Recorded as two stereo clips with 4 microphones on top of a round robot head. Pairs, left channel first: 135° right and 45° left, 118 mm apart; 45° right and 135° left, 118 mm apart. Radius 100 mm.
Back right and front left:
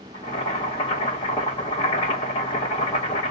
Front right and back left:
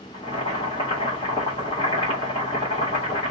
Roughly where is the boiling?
Right.